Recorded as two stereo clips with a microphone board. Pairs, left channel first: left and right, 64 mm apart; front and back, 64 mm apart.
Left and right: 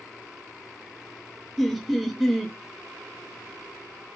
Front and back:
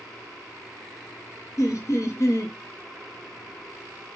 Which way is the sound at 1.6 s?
Straight ahead.